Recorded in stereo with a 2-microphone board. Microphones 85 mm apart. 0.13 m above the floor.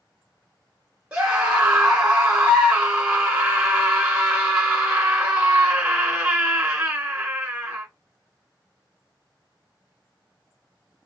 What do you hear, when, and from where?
1.1 s a scream: 10° right (ahead or behind), 1.3 m